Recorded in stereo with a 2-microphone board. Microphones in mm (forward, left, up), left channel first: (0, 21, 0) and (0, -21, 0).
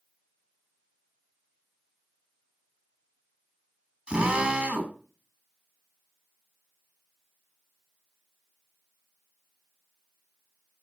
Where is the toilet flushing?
No toilet flushing in this recording.